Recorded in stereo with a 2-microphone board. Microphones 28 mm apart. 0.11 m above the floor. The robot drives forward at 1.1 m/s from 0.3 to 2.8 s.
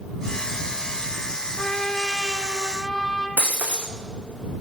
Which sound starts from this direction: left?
A trumpet, at 1.6 s.